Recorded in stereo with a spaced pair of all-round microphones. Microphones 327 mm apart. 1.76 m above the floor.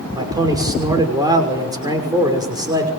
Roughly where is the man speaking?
Centre.